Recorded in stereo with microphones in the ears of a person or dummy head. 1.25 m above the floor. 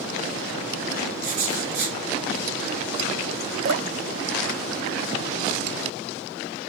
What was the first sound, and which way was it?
Writing, 60° right (ahead or behind).